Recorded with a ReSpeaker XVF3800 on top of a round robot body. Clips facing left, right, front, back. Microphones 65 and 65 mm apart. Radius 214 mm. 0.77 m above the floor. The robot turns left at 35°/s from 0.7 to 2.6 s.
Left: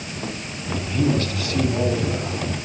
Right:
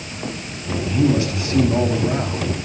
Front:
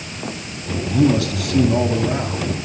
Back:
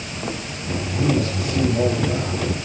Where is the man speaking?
Straight ahead, 7.5 m; by 2.4 s 55° right, 7.5 m.